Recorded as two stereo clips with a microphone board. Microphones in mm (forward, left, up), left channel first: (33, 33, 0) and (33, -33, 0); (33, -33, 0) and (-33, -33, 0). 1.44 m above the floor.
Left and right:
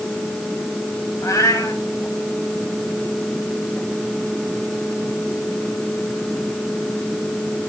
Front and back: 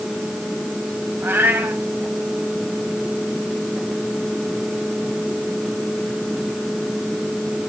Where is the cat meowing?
125° left, 4 m.